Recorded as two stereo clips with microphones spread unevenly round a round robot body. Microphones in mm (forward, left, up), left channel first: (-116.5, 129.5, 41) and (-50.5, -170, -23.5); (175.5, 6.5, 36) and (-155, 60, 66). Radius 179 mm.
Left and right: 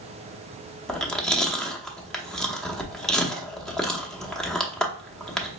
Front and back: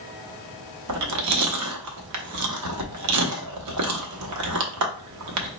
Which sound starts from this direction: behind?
Chewing, at 0.9 s.